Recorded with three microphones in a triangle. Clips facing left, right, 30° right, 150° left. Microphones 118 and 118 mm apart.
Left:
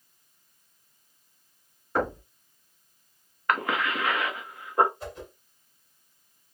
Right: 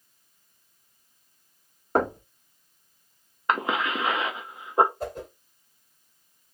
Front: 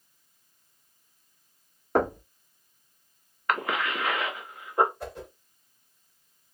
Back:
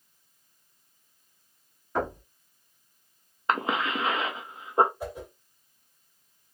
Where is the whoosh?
130° right, 1.8 m.